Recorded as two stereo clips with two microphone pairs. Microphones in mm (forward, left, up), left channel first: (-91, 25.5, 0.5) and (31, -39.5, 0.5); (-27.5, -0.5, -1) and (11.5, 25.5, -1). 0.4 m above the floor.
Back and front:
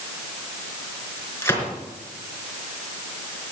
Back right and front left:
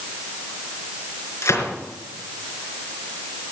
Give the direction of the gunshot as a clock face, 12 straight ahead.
5 o'clock.